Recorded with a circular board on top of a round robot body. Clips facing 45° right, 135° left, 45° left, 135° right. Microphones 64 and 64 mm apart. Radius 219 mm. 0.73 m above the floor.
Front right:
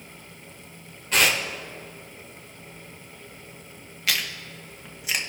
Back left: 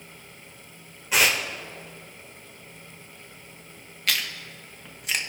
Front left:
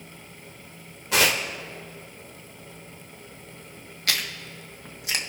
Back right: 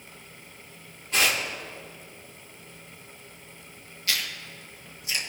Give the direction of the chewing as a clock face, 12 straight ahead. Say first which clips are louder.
Even, front left 2 dB; 11 o'clock.